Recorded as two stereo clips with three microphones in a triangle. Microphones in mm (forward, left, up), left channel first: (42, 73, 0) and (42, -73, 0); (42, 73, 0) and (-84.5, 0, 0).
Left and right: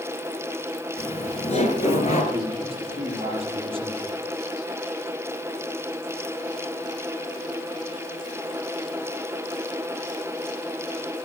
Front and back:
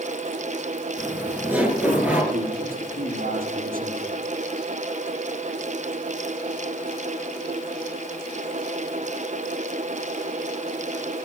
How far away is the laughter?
About 4 m.